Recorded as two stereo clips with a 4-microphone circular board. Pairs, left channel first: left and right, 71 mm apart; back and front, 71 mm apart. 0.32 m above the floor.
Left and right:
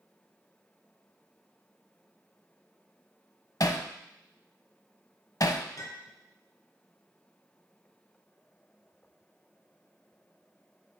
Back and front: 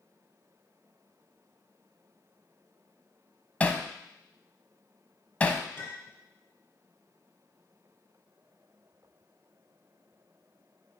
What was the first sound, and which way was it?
Hammering, 115° left.